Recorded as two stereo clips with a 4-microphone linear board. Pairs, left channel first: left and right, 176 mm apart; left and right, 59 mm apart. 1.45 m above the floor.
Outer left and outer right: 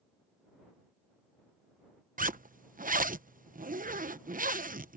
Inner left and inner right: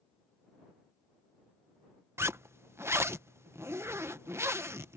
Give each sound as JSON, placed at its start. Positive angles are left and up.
{"t": 2.2, "sound": "a zipper", "side_deg": -50}